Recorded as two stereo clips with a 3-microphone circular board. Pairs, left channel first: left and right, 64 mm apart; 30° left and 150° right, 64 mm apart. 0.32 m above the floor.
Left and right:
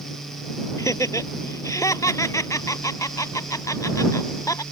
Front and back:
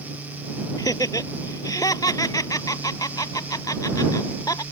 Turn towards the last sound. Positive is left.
turn(degrees=55)